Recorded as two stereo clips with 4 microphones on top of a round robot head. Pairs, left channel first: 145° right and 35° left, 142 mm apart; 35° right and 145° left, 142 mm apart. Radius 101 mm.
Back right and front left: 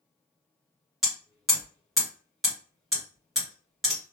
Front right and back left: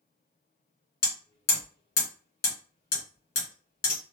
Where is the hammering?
55° right, 1.5 m.